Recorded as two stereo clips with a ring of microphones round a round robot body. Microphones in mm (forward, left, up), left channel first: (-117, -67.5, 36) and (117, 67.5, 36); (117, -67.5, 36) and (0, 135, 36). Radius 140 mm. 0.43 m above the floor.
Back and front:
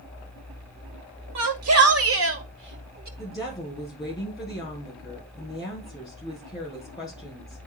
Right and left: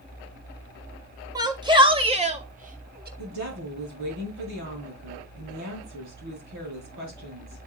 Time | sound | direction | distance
1.4 | a shout | 45° left | 1.8 m
3.2 | a woman speaking | 135° left | 6 m